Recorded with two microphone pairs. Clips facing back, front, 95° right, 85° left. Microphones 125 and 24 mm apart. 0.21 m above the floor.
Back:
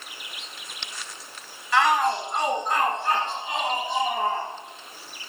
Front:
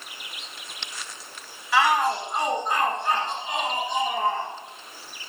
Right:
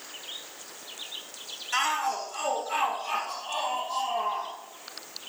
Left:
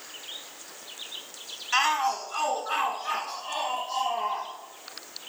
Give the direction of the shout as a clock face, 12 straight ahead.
9 o'clock.